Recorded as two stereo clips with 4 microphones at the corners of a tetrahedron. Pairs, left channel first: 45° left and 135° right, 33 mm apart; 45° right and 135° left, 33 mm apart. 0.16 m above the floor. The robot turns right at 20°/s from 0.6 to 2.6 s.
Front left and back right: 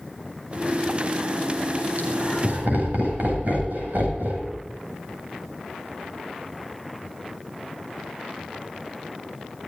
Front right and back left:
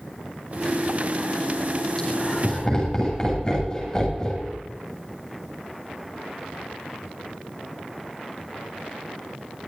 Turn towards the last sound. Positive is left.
turn(degrees=-110)